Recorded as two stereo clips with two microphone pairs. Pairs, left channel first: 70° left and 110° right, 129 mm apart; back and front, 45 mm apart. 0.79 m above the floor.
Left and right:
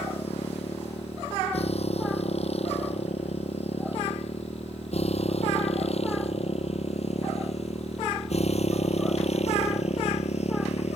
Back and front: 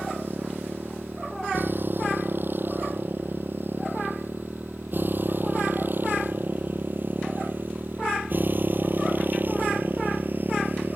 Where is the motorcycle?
40° left; by 11.0 s 45° left.